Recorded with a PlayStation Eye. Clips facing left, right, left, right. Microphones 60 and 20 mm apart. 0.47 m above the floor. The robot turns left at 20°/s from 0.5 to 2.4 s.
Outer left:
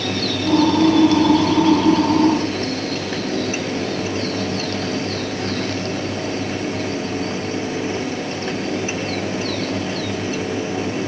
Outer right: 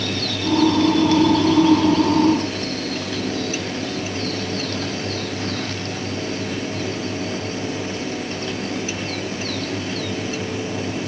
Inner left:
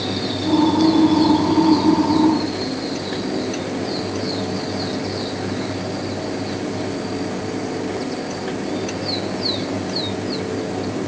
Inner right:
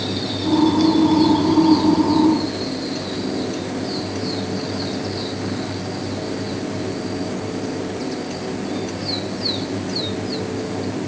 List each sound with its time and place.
Only background noise.